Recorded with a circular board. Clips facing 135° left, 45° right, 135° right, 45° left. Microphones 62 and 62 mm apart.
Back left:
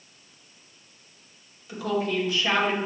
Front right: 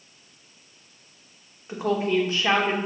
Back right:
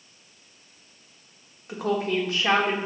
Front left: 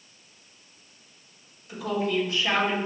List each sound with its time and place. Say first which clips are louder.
1.7 s a woman speaking: front right 3 dB, back right 2 dB; 100° right, 0.9 m